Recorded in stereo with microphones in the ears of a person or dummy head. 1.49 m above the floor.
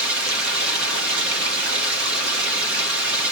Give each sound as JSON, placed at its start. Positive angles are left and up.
{"t": 0.0, "sound": "running water", "side_deg": -65, "distance_m": 1.5}